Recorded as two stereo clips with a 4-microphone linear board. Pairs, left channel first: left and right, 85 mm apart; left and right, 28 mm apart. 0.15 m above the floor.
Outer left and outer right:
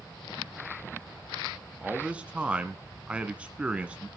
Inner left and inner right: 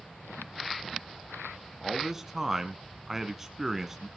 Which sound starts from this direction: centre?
A man speaking, at 1.8 s.